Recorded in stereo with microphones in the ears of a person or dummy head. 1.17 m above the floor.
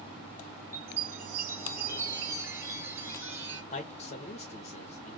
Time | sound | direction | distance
0.7 | a chime | 10° right (ahead or behind) | 1.3 m
3.7 | a man speaking | 40° left (ahead or behind) | 0.9 m